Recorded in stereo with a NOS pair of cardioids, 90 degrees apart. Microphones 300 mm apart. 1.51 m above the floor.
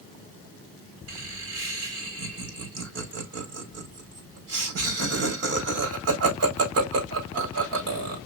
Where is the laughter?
50° right, 4.5 m.